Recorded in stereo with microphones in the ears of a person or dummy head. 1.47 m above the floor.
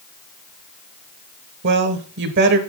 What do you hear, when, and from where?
1.6 s a woman speaking: 55° right (ahead or behind), 1.2 m